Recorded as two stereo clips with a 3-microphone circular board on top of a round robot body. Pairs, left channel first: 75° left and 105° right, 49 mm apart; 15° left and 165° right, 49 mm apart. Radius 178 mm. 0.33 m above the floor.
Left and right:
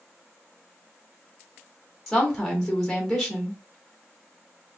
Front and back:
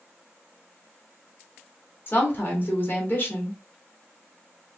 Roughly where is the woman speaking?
Ahead.